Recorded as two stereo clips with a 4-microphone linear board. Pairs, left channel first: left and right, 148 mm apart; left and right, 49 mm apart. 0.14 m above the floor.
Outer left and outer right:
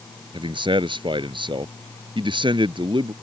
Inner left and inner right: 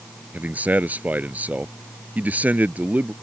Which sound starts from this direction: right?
A man speaking, at 0.3 s.